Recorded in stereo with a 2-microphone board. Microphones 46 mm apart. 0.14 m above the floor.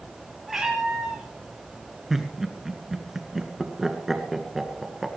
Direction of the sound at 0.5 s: 10° right (ahead or behind).